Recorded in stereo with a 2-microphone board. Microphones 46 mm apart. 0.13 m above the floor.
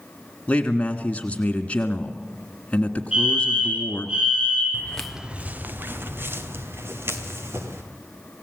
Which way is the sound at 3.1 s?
15° right (ahead or behind).